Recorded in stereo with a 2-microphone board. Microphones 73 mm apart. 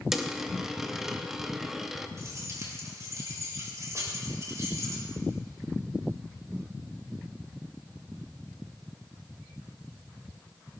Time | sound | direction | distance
0.1 | a dropped coin | 5° right (ahead or behind) | 0.7 m
2.2 | keys jangling | 45° right (ahead or behind) | 4 m